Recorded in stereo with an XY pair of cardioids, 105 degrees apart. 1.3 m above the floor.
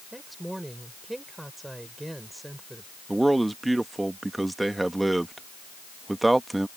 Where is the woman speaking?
10° right.